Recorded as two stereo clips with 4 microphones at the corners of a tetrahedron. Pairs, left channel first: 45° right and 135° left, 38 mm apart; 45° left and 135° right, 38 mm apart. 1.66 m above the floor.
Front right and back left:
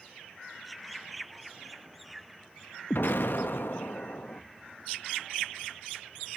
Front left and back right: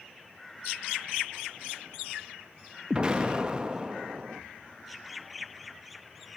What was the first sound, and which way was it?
An explosion, 65° right.